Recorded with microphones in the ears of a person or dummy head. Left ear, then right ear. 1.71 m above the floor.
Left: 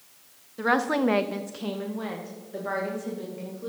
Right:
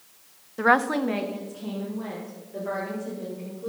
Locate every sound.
0.6 s a woman speaking: 25° right (ahead or behind), 0.6 m; by 3.7 s 90° left, 3.5 m